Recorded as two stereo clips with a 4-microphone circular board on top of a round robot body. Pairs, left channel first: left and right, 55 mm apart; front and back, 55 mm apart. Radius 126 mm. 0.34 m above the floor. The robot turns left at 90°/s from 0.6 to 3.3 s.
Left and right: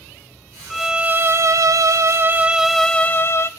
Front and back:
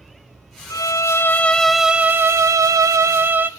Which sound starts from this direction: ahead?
A violin, at 0.7 s.